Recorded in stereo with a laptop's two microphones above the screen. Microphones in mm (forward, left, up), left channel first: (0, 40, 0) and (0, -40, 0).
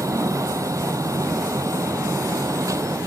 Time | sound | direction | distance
0.0 | a fan | 40° right (ahead or behind) | ?